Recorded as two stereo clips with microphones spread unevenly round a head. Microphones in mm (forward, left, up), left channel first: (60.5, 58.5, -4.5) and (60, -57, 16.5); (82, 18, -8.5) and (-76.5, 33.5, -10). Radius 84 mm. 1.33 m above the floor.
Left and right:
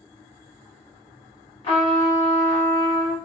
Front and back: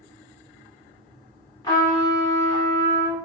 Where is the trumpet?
50° left, 1.3 m.